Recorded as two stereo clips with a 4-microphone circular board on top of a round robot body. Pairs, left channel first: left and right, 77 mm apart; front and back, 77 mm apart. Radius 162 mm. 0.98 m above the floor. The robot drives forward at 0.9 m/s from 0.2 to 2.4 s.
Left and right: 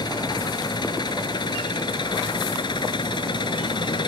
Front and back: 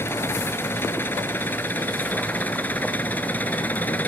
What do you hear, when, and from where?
0.0 s an engine running: 60° left; by 4.1 s 70° left